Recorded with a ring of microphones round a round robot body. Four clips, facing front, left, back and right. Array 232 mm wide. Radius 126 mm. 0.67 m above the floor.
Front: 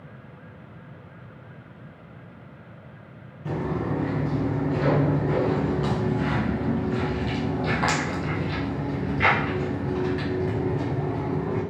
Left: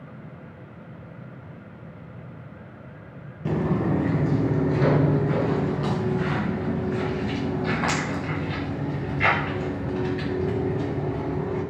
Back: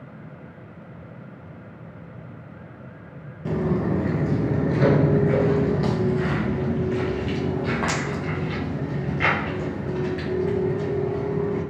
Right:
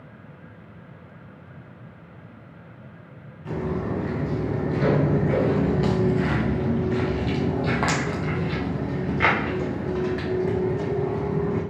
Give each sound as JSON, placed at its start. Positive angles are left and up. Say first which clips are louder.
{"t": 3.5, "sound": "footsteps", "louder": "left 4 dB, back 4 dB", "azimuth_deg": 130, "distance_m": 1.1}